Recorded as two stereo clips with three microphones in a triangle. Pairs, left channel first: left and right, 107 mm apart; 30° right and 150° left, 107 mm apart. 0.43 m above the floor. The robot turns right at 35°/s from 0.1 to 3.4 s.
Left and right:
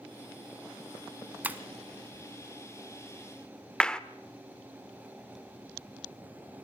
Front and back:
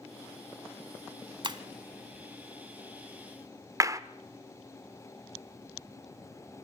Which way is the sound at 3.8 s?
165° left.